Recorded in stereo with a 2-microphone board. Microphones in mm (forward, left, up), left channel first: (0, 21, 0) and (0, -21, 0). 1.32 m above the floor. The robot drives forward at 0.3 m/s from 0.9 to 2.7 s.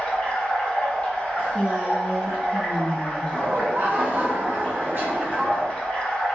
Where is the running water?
30° left (ahead or behind), 1.0 m; by 6.4 s 20° left (ahead or behind), 1.4 m.